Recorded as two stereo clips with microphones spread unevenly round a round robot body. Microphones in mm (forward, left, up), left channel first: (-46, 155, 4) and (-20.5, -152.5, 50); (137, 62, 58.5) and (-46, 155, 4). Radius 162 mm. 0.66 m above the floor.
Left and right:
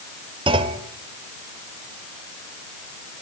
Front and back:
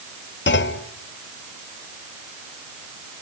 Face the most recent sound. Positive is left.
turn(degrees=-10)